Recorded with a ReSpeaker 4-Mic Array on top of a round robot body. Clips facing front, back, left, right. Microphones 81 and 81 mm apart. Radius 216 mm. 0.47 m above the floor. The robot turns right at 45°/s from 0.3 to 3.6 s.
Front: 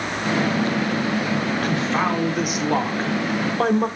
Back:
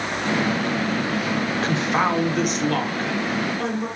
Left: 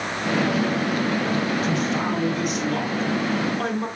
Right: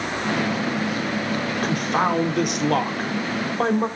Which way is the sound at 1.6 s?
120° right.